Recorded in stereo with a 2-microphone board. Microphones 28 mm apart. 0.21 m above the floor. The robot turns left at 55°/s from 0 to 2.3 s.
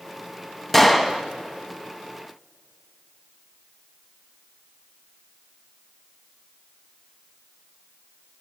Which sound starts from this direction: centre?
A gunshot, at 0.7 s.